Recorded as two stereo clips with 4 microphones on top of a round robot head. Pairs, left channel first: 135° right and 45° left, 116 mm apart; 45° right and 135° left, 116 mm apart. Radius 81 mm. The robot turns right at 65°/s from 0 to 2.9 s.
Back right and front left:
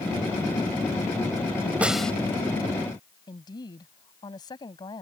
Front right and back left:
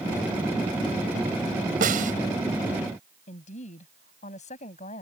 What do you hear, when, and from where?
1.8 s a snare drum: 125° left; by 2.1 s 145° left
3.3 s a woman speaking: 75° right